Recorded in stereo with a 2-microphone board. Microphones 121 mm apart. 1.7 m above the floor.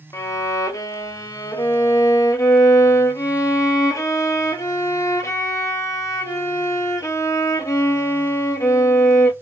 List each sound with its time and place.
0.1 s a violin: 25° left (ahead or behind), 0.6 m